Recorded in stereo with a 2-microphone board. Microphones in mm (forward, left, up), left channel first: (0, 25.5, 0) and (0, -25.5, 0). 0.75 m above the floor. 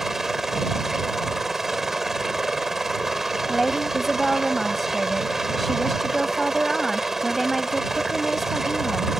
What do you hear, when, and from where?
0.0 s a helicopter: 5° right (ahead or behind)
3.5 s a woman speaking: 5° left (ahead or behind)